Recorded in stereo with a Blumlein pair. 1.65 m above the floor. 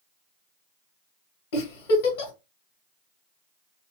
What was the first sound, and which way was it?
A giggle, 50° left.